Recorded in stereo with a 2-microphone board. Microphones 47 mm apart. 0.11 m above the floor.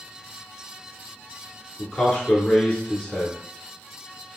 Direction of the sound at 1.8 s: 20° left (ahead or behind).